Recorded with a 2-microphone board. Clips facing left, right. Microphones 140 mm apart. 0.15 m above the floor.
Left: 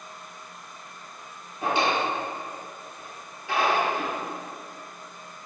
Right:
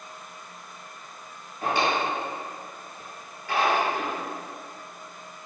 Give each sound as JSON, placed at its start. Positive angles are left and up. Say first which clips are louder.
{"t": 1.6, "sound": "a drawer", "louder": "even", "side_deg": 20, "distance_m": 1.5}